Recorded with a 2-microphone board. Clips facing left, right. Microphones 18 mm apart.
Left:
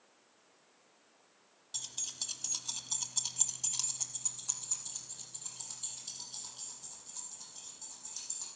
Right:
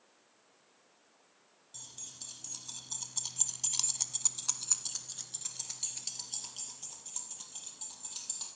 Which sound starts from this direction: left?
Keys jangling, at 1.7 s.